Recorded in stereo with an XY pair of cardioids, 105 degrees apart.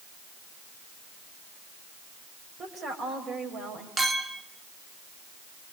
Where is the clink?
30° right, 2 m.